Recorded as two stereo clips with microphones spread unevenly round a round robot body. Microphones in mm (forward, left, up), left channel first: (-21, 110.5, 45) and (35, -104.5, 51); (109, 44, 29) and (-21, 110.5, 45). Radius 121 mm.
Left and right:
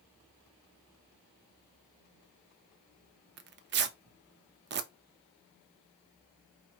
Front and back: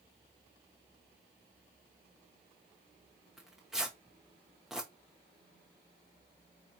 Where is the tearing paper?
115° right, 0.6 m.